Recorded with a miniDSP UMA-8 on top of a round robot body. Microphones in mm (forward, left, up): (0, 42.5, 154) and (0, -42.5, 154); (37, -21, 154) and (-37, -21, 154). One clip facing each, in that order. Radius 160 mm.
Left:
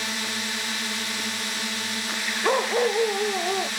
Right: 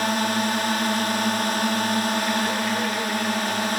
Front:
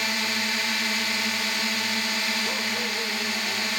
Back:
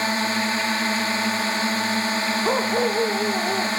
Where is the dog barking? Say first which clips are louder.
Left 2 dB, back 9 dB; 140° left.